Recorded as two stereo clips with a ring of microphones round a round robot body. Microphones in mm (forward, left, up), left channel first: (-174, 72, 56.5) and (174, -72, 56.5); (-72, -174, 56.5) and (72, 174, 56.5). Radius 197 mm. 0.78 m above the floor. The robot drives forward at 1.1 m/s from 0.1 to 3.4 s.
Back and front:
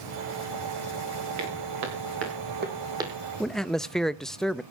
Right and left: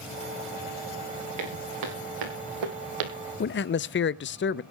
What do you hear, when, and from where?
1.4 s footsteps: 25° left, 5.5 m; by 3.2 s 65° left, 1.9 m
3.4 s a man speaking: 115° right, 0.6 m